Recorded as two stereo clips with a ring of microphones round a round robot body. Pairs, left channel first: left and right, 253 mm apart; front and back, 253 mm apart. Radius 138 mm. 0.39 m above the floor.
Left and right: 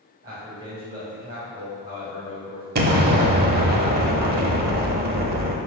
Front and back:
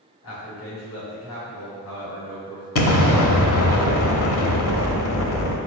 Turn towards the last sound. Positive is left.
turn(degrees=-35)